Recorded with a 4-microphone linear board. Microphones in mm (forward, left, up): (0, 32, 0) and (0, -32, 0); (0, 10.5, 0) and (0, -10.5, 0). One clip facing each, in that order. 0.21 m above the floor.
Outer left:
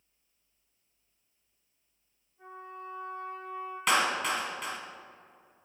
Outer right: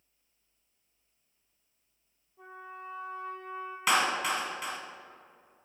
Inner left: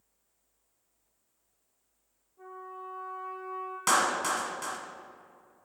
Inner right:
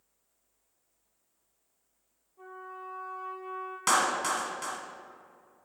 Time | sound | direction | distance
2.4 | a trumpet | 75° right (ahead or behind) | 2.5 m
3.9 | a clap | 5° right (ahead or behind) | 1.2 m